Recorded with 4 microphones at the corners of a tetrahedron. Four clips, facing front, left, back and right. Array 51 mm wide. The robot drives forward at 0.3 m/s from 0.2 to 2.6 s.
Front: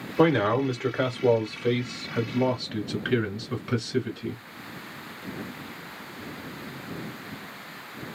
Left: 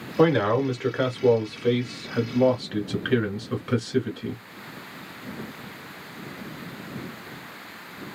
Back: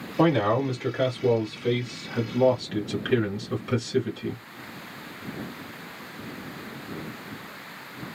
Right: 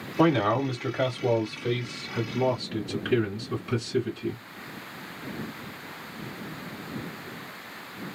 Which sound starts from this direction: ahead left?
A man speaking, at 0.2 s.